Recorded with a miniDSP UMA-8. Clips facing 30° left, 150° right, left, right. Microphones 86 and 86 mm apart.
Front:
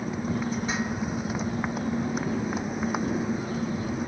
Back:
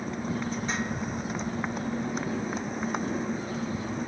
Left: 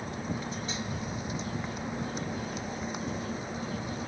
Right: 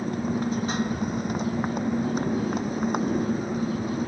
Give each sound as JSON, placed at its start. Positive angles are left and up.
{"t": 0.0, "sound": "a motorcycle", "azimuth_deg": -55}